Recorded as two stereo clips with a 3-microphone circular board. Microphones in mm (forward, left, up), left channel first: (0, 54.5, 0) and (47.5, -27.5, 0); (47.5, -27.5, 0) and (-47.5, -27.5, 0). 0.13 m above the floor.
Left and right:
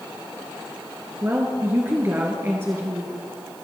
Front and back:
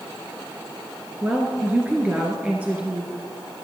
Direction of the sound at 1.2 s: 110° right.